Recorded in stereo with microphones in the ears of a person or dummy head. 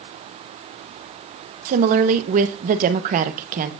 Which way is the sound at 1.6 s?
45° right (ahead or behind).